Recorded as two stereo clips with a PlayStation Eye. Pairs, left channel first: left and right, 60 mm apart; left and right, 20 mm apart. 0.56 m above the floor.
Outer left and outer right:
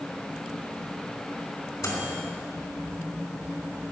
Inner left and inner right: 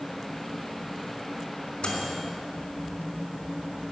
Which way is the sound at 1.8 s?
80° left.